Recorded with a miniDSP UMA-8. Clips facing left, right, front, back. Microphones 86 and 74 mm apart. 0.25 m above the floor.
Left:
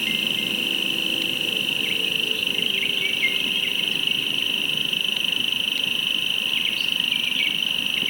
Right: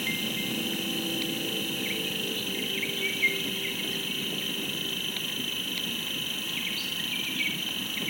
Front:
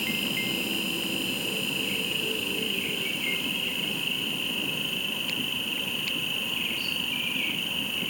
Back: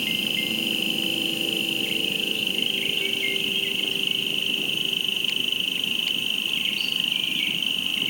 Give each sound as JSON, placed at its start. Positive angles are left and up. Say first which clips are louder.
{"t": 0.0, "sound": "an insect", "louder": "left 3 dB, back 2 dB", "azimuth_deg": -155, "distance_m": 1.6}